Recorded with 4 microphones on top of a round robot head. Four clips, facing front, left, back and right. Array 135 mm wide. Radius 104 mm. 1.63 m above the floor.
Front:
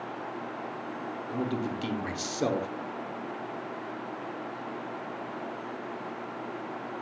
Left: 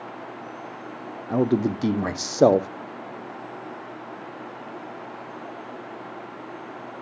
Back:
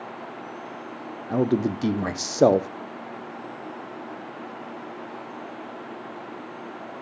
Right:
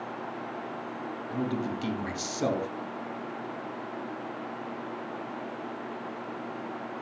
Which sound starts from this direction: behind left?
A man speaking, at 1.3 s.